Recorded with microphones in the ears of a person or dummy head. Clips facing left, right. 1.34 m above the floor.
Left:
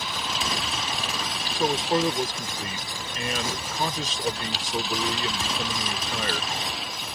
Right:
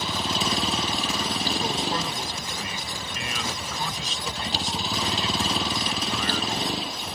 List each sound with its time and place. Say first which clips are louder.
0.0 s a vehicle: right 4 dB; 30° right (ahead or behind)
1.5 s a man speaking: left 8 dB; 45° left (ahead or behind)